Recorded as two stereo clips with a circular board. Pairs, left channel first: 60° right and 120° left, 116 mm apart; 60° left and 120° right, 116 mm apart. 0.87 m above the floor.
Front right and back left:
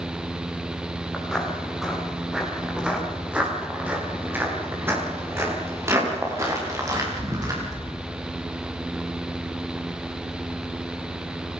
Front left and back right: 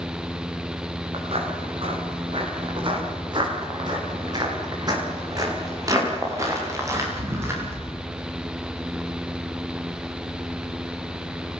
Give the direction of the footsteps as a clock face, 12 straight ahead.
5 o'clock.